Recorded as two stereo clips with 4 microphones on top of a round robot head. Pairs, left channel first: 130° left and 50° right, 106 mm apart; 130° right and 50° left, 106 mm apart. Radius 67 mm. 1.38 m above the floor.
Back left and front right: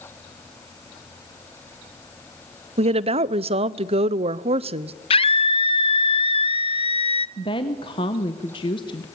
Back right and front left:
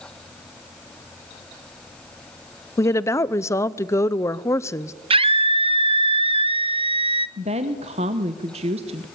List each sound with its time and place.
2.8 s a woman speaking: 65° right, 0.7 m
5.1 s a scream: 90° left, 1.0 m
7.4 s a woman speaking: 80° left, 1.0 m